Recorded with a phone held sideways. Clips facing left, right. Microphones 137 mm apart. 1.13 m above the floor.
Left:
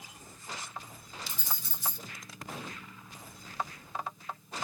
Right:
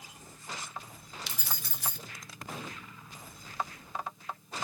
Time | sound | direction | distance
1.3 | keys jangling | 80° right | 0.6 m